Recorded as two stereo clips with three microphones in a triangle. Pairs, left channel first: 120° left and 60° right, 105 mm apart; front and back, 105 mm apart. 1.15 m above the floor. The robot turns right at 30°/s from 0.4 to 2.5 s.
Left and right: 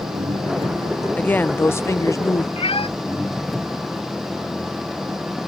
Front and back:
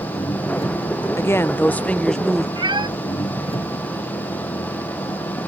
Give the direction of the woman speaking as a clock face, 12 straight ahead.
10 o'clock.